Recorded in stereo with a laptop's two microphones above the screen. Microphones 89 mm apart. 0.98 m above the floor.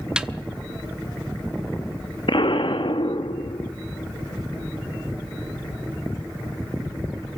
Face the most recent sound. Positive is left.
turn(degrees=70)  # may be behind; listen again after turning